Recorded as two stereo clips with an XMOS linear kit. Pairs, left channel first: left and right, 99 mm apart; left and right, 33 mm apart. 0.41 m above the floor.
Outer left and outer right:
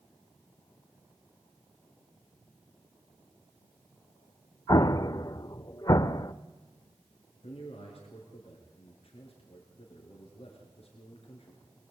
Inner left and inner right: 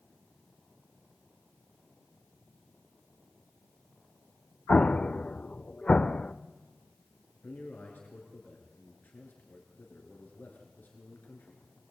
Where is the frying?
No frying in this recording.